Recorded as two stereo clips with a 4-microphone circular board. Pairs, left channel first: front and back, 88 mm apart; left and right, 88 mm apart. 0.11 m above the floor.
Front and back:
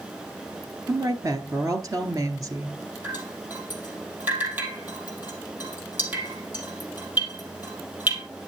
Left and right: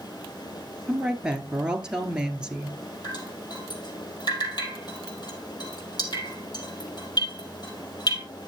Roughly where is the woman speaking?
Behind.